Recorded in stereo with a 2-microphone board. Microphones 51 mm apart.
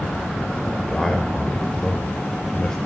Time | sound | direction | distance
0.7 | a man speaking | 10° left (ahead or behind) | 1.0 m